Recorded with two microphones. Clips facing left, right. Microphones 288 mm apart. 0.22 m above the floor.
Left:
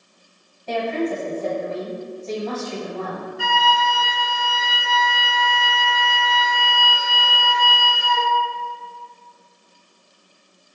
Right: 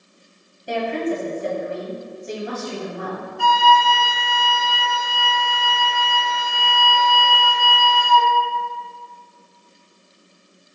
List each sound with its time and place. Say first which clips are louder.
0.7 s a woman speaking: even; 15° right (ahead or behind), 1.0 m
3.4 s a flute: right 6 dB; 25° left (ahead or behind), 1.0 m